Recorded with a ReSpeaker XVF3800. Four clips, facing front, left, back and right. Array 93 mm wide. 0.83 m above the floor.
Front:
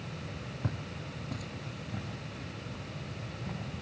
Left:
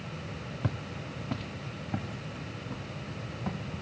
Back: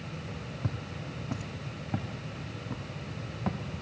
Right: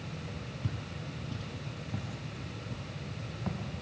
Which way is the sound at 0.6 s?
85° left.